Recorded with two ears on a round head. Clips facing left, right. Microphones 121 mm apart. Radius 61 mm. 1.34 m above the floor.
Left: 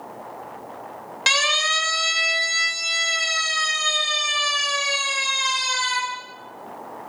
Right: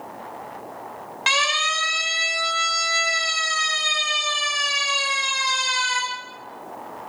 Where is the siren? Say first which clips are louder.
Right 1 dB; 50° left (ahead or behind), 3 m; by 6.0 s 30° left (ahead or behind), 5.5 m.